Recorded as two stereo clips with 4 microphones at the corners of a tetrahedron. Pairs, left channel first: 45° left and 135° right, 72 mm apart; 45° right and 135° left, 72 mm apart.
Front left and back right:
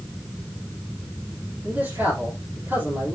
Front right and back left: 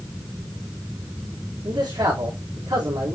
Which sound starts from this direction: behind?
A man speaking, at 1.6 s.